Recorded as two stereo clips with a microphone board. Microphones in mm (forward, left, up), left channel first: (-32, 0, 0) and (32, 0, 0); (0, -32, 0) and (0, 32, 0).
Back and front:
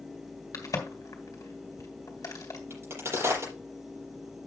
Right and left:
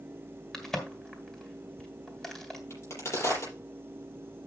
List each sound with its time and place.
0.5 s a crack: 170° right, 2.5 m
2.7 s a crack: 45° right, 6.5 m